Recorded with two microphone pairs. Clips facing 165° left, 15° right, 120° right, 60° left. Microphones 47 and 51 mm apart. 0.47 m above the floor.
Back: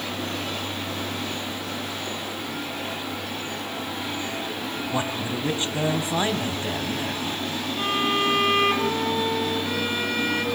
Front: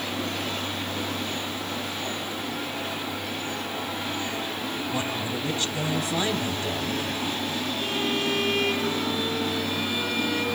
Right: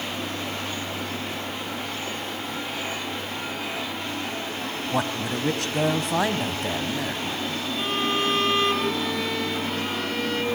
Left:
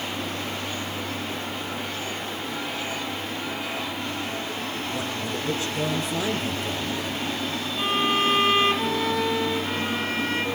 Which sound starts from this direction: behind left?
A violin, at 7.8 s.